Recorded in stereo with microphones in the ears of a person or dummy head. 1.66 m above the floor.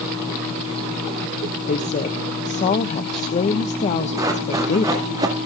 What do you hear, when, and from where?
1.7 s a woman speaking: 35° left (ahead or behind), 1.0 m
4.2 s running footsteps: 15° right (ahead or behind), 7 m; by 5.4 s 20° right (ahead or behind), 8.5 m